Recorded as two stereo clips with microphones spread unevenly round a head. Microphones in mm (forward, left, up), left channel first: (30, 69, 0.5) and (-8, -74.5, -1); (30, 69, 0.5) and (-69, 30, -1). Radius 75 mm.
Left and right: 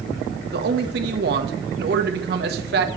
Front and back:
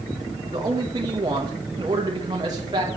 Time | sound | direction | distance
0.5 | a man speaking | 95° right | 1.4 m